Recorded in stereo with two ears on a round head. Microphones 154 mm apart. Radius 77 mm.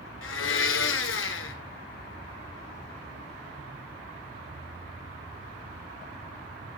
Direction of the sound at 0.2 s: 85° left.